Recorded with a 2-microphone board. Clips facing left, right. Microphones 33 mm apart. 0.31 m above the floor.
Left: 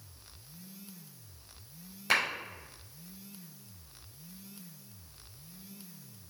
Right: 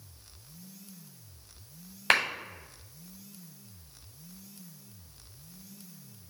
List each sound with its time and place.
2.1 s a clap: 55° right (ahead or behind), 2 m